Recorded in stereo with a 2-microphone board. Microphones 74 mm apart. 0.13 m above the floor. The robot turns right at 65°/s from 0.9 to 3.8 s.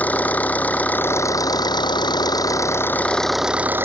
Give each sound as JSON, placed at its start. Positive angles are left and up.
{"t": 0.0, "sound": "an engine running", "azimuth_deg": 20}